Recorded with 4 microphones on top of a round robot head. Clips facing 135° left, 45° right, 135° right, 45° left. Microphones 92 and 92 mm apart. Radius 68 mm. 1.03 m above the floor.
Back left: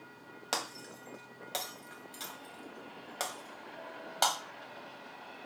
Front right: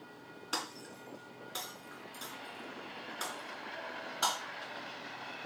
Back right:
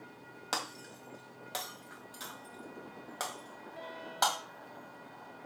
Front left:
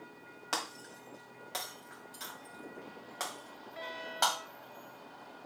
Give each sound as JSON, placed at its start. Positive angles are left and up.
{"t": 0.5, "sound": "breaking glass", "azimuth_deg": 145, "distance_m": 1.6}